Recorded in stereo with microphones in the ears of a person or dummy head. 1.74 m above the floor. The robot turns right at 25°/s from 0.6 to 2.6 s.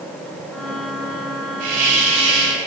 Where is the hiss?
50° right (ahead or behind), 4.5 m; by 2.6 s 25° right (ahead or behind), 4.5 m.